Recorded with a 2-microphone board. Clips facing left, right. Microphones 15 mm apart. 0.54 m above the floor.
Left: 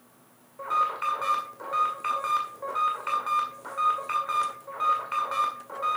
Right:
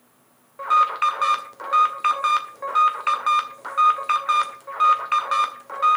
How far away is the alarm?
About 1.9 m.